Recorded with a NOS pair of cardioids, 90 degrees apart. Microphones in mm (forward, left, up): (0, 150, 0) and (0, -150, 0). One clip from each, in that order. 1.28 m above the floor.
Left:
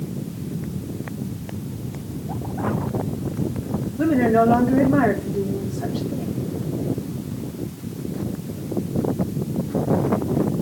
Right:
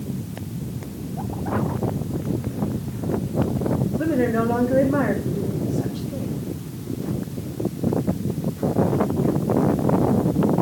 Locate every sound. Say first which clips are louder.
4.0 s a woman speaking: left 6 dB; 30° left, 3 m